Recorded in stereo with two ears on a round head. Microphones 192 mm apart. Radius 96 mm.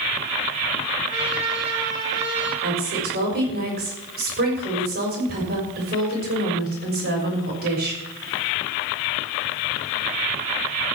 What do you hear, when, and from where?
1.1 s a trumpet: 25° right (ahead or behind), 8.5 m
2.6 s a woman speaking: 45° right (ahead or behind), 6 m